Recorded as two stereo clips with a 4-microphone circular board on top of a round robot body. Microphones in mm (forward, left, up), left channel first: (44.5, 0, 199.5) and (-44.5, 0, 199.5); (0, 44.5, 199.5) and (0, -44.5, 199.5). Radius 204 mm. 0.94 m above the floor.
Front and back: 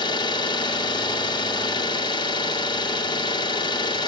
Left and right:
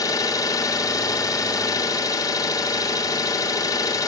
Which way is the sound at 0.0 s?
40° left.